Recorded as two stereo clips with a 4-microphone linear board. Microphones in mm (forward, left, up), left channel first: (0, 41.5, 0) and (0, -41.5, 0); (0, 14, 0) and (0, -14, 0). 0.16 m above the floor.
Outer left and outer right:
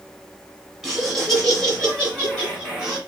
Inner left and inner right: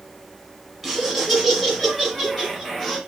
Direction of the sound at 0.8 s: Centre (ahead or behind).